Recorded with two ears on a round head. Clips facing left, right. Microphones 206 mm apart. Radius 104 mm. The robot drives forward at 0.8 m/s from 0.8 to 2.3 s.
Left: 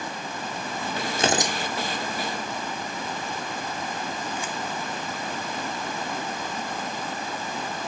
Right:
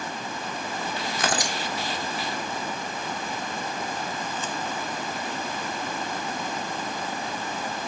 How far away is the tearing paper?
About 0.7 m.